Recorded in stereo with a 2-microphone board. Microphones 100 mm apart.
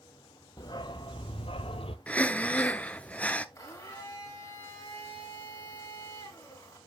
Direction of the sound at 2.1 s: 15° left (ahead or behind).